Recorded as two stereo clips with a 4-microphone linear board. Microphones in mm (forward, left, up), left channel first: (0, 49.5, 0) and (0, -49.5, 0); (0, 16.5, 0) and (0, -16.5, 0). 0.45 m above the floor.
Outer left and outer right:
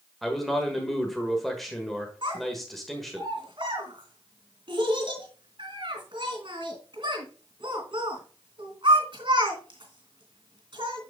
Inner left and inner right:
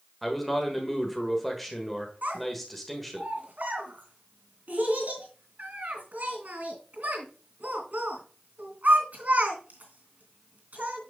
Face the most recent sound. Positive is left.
turn(degrees=-60)  # may be behind; listen again after turning